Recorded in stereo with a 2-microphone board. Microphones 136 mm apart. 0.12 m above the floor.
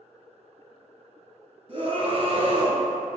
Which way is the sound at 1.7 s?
40° right (ahead or behind).